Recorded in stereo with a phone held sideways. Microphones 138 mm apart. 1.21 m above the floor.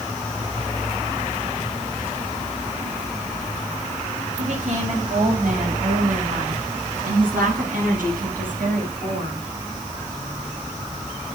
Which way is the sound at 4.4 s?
60° right (ahead or behind).